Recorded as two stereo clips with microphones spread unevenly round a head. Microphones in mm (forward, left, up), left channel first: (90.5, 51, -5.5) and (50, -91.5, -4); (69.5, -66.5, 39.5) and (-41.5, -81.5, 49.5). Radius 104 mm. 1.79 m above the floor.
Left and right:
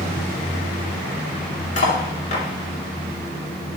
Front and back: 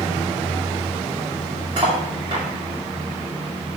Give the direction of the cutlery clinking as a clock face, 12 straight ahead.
8 o'clock.